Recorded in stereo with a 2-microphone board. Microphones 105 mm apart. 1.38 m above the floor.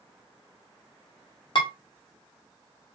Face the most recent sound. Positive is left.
turn(degrees=55)  # may be behind; listen again after turning